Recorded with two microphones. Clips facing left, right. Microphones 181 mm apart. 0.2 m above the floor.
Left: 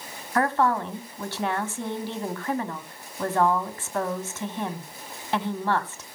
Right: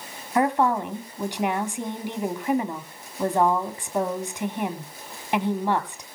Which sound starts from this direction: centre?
A woman speaking, at 0.3 s.